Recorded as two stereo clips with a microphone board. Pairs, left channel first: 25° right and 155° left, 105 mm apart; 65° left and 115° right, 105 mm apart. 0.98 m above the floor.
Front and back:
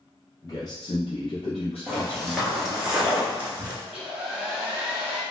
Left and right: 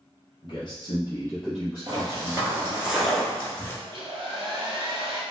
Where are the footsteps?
110° right, 1.1 m; by 3.7 s 105° left, 1.0 m.